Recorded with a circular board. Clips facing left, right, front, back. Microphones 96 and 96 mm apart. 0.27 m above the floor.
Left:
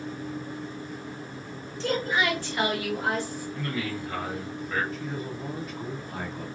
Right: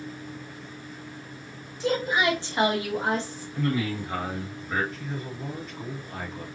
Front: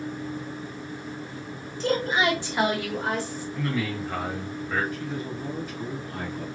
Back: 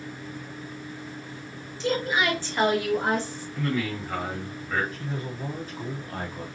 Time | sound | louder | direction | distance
1.8 | a woman speaking | right 2 dB, front 2 dB | 15° right | 1.7 m
3.5 | a man speaking | right 6 dB, back 1 dB | 85° right | 1.7 m
4.9 | a man speaking | left 2 dB, front 2 dB | 175° left | 1.6 m